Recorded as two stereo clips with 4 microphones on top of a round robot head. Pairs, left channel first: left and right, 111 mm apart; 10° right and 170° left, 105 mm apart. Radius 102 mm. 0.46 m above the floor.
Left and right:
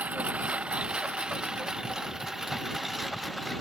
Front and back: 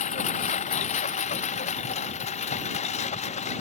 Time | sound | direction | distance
0.0 | a lawn mower | 10° right | ?